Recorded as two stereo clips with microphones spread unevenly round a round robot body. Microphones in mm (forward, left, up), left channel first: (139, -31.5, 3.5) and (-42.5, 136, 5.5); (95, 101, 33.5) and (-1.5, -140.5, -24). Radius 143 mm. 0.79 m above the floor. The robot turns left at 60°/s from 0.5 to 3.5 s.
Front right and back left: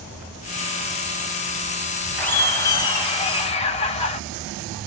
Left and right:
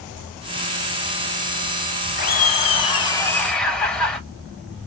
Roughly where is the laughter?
Ahead left.